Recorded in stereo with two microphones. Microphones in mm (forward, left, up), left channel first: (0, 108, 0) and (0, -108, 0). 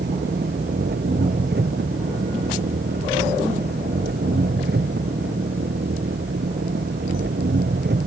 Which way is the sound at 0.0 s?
55° right (ahead or behind).